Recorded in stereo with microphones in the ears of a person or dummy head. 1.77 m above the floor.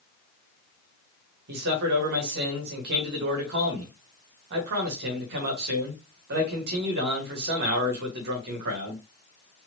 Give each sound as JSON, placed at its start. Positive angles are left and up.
{"t": 1.5, "sound": "a man speaking", "side_deg": -55, "distance_m": 1.9}